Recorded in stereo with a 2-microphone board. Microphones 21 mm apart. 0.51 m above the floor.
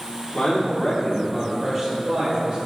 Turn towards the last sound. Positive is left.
turn(degrees=-45)  # may be behind; listen again after turning